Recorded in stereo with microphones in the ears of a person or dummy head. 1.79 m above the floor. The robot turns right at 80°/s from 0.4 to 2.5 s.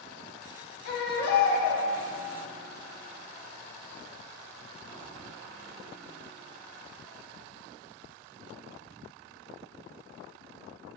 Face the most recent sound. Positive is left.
turn(degrees=-160)